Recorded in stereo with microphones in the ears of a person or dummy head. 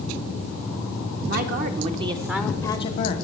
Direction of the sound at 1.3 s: 50° right (ahead or behind).